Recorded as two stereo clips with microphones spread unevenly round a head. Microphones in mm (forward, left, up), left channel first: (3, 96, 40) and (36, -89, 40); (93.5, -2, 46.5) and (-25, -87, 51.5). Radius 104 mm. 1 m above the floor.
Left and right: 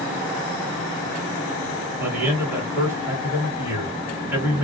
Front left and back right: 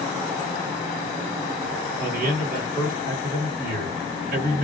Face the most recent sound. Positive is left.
turn(degrees=-155)